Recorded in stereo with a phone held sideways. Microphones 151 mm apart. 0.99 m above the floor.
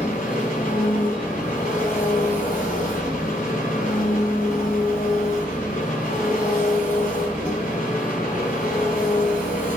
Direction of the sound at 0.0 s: 75° left (ahead or behind).